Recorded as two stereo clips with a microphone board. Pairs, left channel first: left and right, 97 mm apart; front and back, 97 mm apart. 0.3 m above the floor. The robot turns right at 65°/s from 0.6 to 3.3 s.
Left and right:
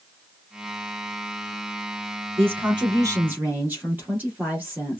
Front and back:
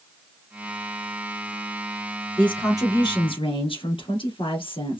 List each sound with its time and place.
2.4 s a woman speaking: 80° right, 4.5 m; by 5.0 s 20° right, 4.5 m